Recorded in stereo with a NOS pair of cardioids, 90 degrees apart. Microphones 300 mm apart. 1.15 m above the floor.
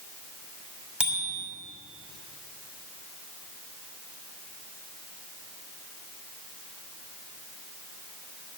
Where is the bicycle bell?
5° right, 6 m.